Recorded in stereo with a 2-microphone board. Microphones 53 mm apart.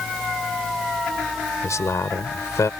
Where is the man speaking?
75° left (ahead or behind).